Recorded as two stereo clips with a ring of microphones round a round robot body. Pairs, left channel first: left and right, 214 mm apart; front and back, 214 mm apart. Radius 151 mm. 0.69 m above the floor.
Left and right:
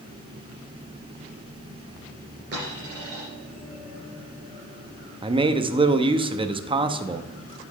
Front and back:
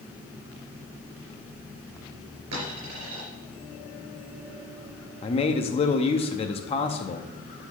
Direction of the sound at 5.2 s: 40° right.